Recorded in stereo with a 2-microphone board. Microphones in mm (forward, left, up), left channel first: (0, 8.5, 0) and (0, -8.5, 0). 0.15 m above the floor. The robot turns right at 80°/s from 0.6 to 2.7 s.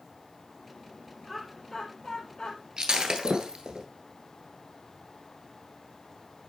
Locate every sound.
1.2 s laughter: 20° right (ahead or behind), 2.5 m; by 2.6 s 65° left (ahead or behind), 2.5 m
2.8 s breaking glass: 55° right (ahead or behind), 1.5 m